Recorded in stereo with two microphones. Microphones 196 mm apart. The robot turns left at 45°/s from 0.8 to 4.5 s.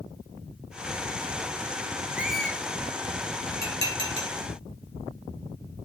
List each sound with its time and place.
2.2 s a squeak: 10° right (ahead or behind), 2.5 m; by 2.6 s 10° left (ahead or behind), 2.5 m
3.6 s dishes clattering: 50° left (ahead or behind), 7 m; by 4.3 s 80° left, 7 m